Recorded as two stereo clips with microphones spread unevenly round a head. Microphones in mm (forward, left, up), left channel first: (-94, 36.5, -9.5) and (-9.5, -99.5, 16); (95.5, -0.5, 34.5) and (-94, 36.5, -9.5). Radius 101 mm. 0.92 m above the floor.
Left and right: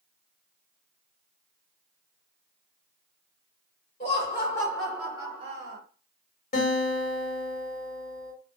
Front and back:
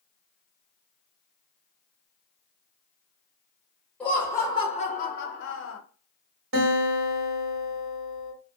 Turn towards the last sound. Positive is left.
turn(degrees=150)